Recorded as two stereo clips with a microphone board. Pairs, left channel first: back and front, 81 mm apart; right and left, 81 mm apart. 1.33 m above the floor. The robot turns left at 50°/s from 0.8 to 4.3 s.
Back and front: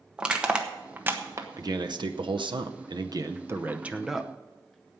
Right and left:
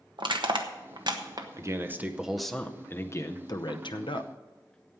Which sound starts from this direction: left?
Crushing, at 0.2 s.